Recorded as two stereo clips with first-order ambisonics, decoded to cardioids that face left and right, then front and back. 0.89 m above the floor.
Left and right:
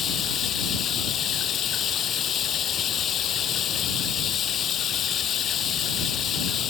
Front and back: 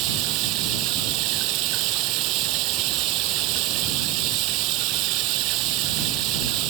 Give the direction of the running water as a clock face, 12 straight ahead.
7 o'clock.